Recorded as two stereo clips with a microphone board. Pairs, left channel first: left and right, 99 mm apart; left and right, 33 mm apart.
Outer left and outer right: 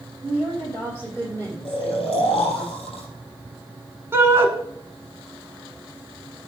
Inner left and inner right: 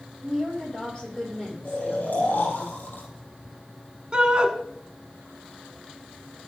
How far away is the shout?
About 1.1 m.